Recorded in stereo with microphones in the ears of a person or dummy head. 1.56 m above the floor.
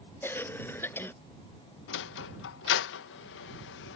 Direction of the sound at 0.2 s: 15° left (ahead or behind).